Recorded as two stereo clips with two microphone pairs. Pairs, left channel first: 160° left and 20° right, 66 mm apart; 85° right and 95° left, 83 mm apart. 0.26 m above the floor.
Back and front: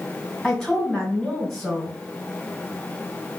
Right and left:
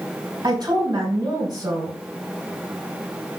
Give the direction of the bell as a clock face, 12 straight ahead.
No bell in this recording.